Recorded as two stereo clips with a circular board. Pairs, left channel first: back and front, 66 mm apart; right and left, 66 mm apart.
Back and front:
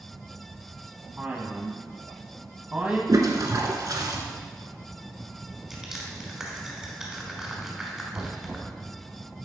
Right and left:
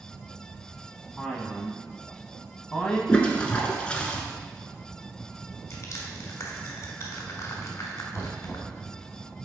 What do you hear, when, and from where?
1.2 s a man speaking: 30° right, 1.0 m
3.1 s a toilet flushing: 20° right, 0.8 m
5.7 s crushing: 80° right, 1.3 m
8.1 s knocking: 35° right, 1.3 m